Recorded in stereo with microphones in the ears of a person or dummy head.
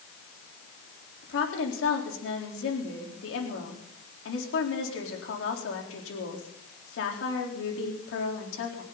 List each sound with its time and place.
1.2 s a woman speaking: 85° left, 4 m